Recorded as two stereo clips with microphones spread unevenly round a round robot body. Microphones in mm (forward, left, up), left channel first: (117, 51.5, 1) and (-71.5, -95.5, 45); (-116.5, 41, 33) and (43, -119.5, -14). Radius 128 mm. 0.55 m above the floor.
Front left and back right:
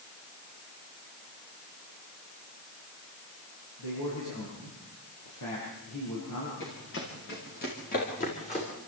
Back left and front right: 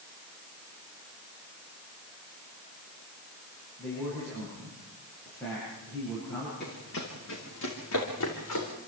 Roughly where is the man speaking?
Ahead left.